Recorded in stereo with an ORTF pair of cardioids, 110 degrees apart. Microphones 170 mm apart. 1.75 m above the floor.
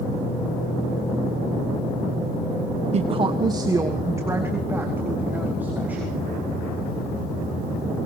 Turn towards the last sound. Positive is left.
turn(degrees=-10)